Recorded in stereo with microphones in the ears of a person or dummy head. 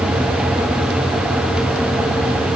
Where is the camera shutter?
I don't hear a camera shutter.